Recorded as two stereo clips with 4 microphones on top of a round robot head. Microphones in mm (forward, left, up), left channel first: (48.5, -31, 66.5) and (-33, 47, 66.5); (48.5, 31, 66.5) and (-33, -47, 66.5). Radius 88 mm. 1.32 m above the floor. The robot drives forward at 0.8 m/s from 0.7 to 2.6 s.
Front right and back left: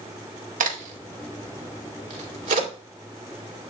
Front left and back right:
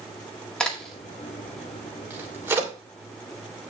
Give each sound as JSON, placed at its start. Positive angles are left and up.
{"t": 0.6, "sound": "a crack", "azimuth_deg": 125, "distance_m": 1.6}